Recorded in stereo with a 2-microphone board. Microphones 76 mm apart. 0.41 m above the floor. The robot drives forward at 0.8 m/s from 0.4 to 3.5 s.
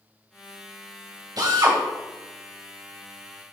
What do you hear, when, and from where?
1.4 s a drill: 60° right (ahead or behind), 1.6 m; by 1.8 s 55° right (ahead or behind), 1.7 m